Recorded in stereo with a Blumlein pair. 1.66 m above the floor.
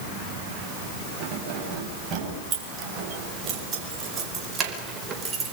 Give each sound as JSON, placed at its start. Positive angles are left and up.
{"t": 1.2, "sound": "keys jangling", "azimuth_deg": -30, "distance_m": 7.5}